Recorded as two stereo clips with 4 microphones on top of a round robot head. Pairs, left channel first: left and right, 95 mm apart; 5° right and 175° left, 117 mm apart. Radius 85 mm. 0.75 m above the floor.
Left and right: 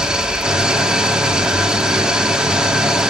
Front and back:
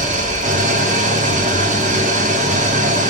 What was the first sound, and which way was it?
An engine running, 170° right.